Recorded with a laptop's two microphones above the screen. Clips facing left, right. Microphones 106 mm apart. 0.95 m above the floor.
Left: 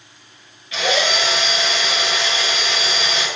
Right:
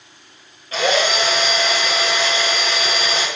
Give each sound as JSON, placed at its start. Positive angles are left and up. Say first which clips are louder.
{"t": 0.7, "sound": "a drill", "louder": "right 2 dB", "side_deg": -40, "distance_m": 4.5}